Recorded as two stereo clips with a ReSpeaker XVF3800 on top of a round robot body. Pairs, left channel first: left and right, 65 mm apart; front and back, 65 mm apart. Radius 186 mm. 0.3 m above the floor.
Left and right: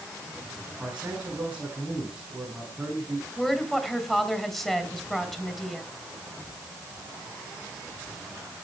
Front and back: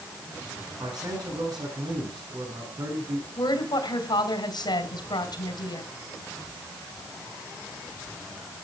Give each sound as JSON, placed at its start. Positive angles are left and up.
{"t": 0.8, "sound": "a man speaking", "azimuth_deg": -165, "distance_m": 7.0}
{"t": 3.4, "sound": "a woman speaking", "azimuth_deg": 5, "distance_m": 4.0}